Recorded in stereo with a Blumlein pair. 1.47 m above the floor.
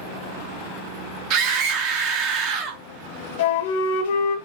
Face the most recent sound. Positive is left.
turn(degrees=55)